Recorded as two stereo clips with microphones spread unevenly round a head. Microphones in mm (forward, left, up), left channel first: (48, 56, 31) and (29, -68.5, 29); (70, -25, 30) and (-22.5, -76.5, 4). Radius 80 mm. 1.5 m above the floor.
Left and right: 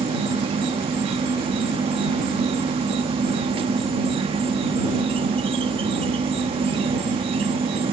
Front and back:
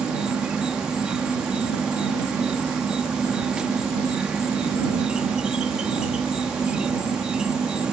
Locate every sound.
0.0 s an insect: 60° right